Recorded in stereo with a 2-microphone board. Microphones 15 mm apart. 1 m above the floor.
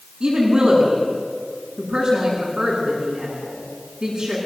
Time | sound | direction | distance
0.2 | a woman speaking | 60° right (ahead or behind) | 8 m